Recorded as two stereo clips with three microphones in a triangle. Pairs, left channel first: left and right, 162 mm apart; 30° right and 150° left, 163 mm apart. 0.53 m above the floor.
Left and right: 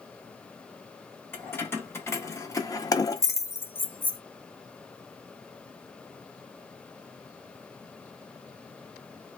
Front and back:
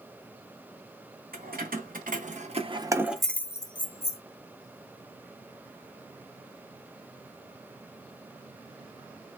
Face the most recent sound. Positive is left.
turn(degrees=10)